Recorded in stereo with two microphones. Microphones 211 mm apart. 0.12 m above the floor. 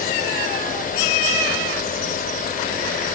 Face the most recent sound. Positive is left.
No sound to turn to.